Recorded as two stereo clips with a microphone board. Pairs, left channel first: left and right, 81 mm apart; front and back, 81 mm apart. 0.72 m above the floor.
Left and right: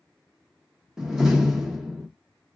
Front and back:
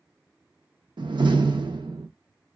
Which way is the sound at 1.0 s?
175° right.